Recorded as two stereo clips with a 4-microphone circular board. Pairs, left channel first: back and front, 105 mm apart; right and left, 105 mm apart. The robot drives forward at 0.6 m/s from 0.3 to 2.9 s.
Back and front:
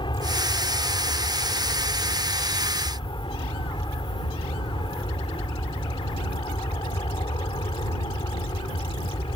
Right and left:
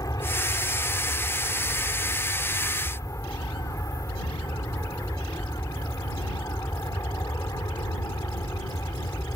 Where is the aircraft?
145° right.